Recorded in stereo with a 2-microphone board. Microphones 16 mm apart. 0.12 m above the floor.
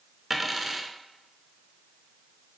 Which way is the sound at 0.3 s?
5° right (ahead or behind).